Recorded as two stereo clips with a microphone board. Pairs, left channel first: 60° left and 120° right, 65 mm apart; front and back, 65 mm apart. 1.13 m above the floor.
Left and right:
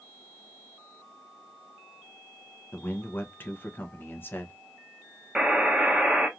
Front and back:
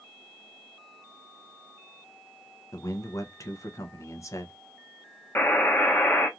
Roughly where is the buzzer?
Ahead right.